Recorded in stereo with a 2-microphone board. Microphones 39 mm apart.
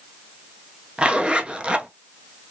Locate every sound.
1.0 s a zipper: 25° right (ahead or behind), 0.6 m